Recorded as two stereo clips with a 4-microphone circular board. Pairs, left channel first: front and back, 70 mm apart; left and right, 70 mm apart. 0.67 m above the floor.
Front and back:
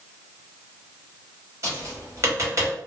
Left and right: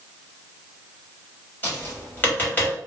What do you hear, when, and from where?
1.6 s tapping: 150° left, 1.3 m